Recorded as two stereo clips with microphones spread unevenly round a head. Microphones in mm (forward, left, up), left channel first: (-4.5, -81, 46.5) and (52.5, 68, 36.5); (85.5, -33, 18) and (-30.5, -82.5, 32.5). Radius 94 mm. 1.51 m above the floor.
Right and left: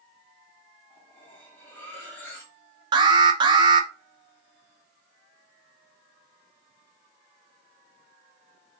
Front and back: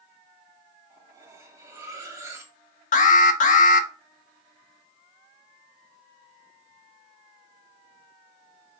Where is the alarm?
5° left, 0.6 m.